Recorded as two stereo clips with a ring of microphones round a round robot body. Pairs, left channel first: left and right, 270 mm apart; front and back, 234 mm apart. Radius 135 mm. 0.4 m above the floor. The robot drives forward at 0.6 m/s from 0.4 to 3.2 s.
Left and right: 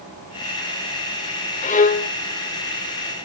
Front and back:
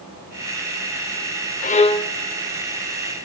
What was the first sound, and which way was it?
A violin, 35° left.